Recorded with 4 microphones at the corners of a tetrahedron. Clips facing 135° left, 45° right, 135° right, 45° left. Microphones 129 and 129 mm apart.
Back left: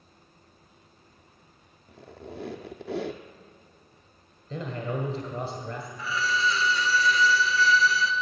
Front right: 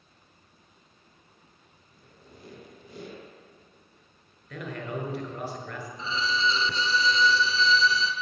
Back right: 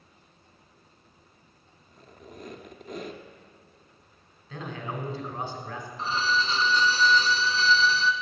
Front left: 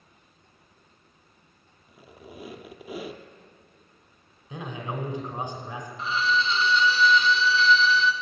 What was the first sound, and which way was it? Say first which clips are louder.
A squeak: back left 13 dB, front left 2 dB; 130° left.